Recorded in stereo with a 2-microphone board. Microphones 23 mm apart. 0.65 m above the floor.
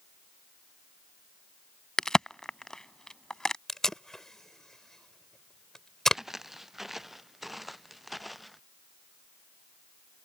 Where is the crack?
30° left (ahead or behind).